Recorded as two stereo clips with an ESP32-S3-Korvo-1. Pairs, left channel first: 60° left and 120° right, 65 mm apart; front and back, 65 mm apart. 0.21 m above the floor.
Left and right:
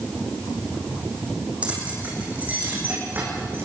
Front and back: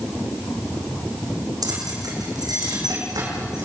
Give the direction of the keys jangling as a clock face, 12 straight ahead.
6 o'clock.